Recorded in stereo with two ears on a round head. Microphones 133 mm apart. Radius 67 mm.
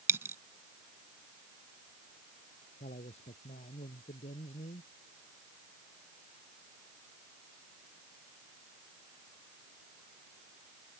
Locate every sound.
0.1 s a dropped coin: 20° right (ahead or behind)
2.8 s a man speaking: 45° left (ahead or behind)